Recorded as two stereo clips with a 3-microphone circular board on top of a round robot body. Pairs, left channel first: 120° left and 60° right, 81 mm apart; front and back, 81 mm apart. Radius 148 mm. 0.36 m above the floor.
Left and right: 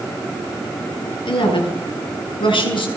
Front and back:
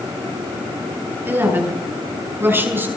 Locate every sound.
1.2 s a woman speaking: 115° left, 8.5 m